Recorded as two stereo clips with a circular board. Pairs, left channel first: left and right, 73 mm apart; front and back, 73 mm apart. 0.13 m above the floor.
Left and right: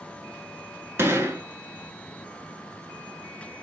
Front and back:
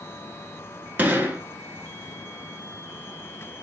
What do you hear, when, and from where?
1.0 s a gunshot: 130° right, 0.8 m